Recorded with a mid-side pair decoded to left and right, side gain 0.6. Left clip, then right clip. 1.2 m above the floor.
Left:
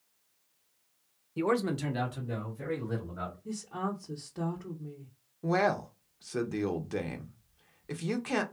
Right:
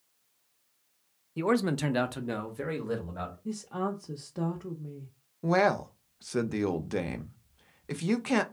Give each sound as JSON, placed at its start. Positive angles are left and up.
{"t": 1.4, "sound": "a man speaking", "azimuth_deg": 0, "distance_m": 0.6}
{"t": 3.5, "sound": "a woman speaking", "azimuth_deg": -20, "distance_m": 0.6}
{"t": 5.4, "sound": "a man speaking", "azimuth_deg": -15, "distance_m": 0.6}